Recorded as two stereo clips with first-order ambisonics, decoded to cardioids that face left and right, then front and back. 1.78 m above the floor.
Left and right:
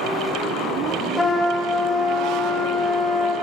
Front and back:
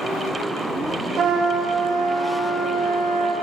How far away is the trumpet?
About 1.3 m.